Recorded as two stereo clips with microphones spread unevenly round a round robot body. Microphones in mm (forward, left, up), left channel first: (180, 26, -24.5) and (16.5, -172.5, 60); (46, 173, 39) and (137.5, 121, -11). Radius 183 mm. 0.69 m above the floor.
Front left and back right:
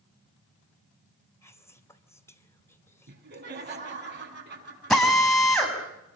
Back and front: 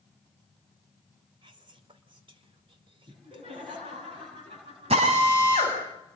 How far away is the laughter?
About 7.5 m.